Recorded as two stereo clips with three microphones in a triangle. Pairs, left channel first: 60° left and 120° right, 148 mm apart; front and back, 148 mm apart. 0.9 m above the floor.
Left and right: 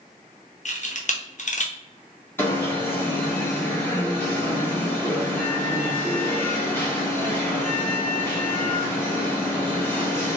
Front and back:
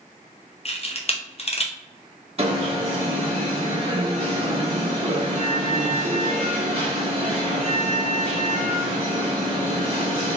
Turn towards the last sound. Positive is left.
turn(degrees=135)